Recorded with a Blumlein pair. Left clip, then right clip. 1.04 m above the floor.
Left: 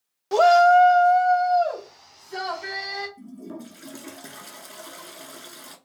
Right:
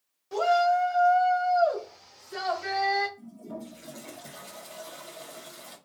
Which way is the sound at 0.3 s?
35° left.